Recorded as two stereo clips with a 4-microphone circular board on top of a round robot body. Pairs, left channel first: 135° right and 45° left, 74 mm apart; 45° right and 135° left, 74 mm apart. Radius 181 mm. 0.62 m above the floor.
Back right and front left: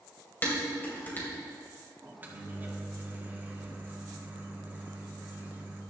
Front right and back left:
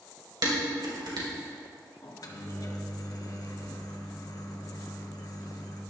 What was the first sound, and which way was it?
Dishes clattering, 160° left.